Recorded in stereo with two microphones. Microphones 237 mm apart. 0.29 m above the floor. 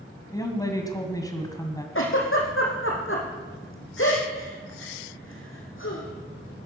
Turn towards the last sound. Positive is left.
turn(degrees=60)  # may be behind; listen again after turning